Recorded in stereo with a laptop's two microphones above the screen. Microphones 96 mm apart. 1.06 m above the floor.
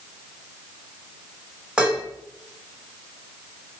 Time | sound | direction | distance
1.8 | dishes clattering | 10° right (ahead or behind) | 0.8 m